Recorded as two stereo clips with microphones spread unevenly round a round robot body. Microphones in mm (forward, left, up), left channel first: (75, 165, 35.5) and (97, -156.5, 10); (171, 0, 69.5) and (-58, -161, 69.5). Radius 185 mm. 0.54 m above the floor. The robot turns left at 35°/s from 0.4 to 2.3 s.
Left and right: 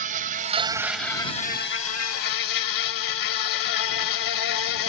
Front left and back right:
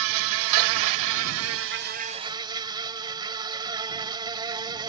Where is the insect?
155° right; by 4.9 s 135° left.